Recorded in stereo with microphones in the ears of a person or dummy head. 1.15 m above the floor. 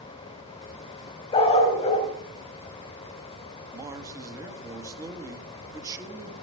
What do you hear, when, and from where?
1.3 s a dog barking: 30° left (ahead or behind), 3 m
3.7 s a man speaking: 20° right (ahead or behind), 1.9 m